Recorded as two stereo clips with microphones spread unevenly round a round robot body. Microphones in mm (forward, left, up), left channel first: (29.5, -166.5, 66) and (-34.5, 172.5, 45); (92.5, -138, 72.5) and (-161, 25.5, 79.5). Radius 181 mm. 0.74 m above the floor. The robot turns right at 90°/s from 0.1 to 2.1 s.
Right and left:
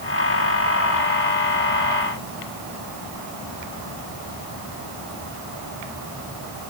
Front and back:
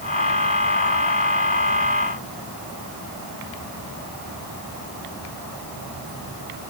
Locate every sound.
Only background noise.